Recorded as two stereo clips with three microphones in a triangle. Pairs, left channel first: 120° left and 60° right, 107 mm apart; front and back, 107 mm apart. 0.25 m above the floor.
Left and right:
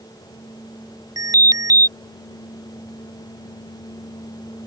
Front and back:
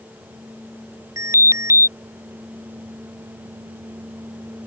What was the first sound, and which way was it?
An alarm, 115° right.